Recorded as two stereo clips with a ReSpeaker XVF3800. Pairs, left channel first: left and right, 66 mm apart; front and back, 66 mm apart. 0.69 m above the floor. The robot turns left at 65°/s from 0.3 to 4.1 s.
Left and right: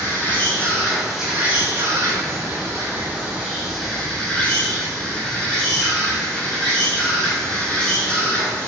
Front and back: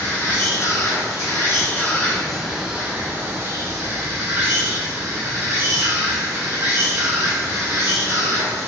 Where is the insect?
45° left, 0.8 m; by 8.7 s 160° left, 0.8 m.